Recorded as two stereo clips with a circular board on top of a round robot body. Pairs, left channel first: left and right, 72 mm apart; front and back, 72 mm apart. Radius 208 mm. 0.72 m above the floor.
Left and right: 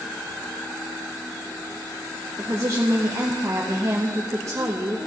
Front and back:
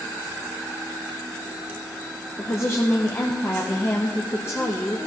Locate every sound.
2.4 s a woman speaking: 50° right, 1.5 m